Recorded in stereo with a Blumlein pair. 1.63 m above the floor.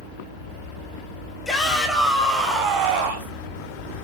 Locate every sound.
1.4 s a shout: 10° left, 3 m; by 3.3 s 60° right, 2 m